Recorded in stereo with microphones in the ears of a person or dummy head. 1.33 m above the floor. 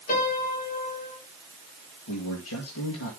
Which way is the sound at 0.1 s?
45° left (ahead or behind).